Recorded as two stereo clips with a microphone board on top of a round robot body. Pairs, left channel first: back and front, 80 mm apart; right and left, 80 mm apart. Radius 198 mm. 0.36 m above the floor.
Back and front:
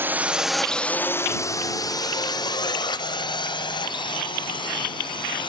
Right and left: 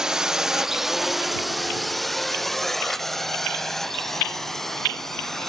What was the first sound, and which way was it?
A drone, 15° left.